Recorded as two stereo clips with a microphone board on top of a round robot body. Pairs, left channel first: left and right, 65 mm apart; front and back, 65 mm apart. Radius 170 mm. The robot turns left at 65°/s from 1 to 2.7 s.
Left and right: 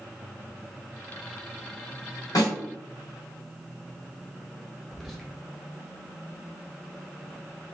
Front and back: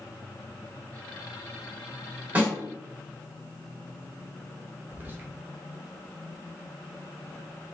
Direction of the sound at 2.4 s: 115° left.